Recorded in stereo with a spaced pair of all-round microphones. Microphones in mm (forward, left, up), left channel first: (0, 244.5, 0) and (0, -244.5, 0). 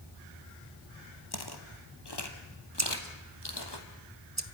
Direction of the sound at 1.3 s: 50° left (ahead or behind).